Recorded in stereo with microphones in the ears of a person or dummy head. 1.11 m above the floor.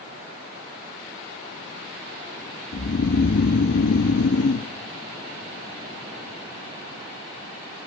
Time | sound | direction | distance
2.7 | snoring | 55° left (ahead or behind) | 0.9 m